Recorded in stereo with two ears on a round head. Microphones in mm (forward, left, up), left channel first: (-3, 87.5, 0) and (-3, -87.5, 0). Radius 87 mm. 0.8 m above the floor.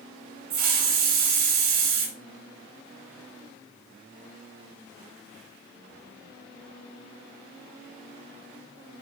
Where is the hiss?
40° right (ahead or behind), 3.5 m.